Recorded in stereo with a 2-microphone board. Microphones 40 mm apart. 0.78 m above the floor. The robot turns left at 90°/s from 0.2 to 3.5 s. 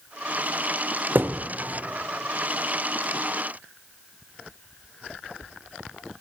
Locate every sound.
1.1 s a thud: 55° right (ahead or behind), 0.6 m; by 1.5 s 45° right (ahead or behind), 0.6 m